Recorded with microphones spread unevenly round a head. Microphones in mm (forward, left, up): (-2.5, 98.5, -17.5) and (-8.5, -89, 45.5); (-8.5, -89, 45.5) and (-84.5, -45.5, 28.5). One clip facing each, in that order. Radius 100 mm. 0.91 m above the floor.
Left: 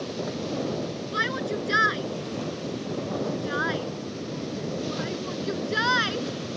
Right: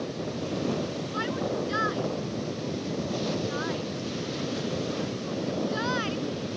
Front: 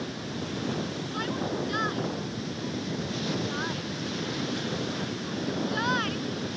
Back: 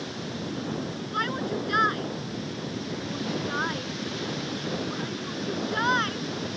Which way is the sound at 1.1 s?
90° left.